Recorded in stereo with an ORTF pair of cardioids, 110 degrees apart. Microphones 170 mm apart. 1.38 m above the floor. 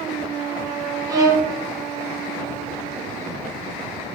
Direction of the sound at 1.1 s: 20° right.